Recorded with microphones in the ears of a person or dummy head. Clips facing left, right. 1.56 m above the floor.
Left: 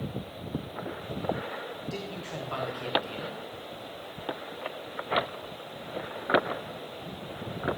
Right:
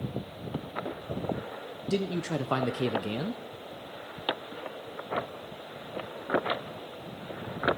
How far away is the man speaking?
About 0.6 m.